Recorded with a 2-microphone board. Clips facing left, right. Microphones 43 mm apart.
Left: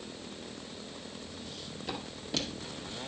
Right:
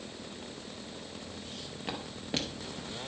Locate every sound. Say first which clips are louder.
1.4 s footsteps: even; 40° right (ahead or behind), 2.0 m; by 3.1 s 20° right (ahead or behind), 1.3 m